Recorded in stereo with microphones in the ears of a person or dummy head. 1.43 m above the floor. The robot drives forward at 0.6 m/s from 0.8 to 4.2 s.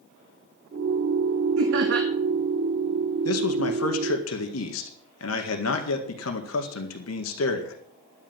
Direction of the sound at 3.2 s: 80° left.